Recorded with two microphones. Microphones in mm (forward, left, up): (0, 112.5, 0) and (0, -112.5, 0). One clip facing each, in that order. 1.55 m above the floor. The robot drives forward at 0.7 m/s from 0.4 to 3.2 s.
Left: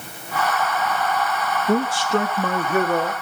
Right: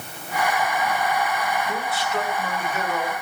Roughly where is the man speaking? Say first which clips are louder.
Left 8 dB; left.